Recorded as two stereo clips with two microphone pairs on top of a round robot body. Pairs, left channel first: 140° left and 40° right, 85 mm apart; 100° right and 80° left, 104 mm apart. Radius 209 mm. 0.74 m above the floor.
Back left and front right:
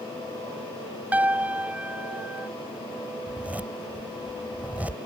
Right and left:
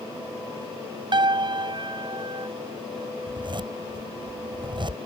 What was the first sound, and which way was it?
A piano, 30° left.